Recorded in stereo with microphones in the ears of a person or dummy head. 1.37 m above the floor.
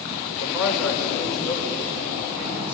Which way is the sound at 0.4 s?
10° left (ahead or behind).